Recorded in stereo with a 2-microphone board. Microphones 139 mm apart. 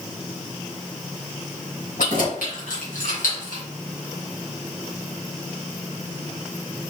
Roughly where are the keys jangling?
Left.